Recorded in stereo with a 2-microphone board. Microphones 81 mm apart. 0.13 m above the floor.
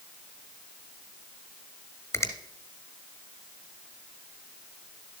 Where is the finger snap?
35° left (ahead or behind), 1.3 m.